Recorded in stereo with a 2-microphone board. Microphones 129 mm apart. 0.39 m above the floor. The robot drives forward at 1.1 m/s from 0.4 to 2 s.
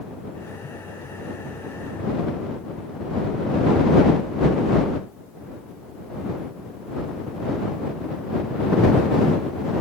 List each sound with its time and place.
Only background noise.